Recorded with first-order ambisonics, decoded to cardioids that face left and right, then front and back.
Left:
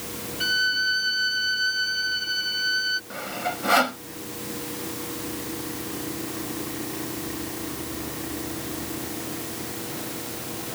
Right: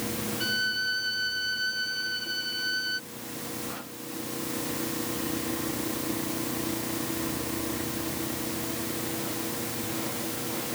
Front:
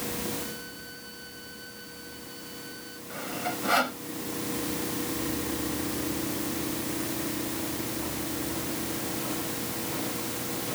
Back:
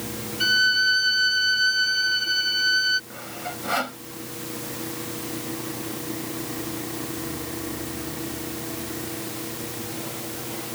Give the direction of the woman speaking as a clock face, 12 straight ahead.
No woman speaking in this recording.